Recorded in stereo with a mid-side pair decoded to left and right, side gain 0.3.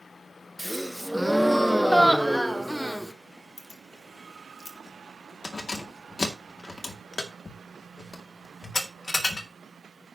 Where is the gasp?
5° left, 1.1 m.